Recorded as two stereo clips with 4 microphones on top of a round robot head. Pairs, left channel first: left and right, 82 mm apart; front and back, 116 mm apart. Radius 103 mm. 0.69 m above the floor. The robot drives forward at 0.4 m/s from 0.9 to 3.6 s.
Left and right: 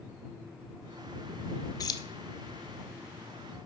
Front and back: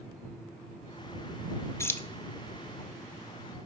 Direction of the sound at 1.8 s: 65° left.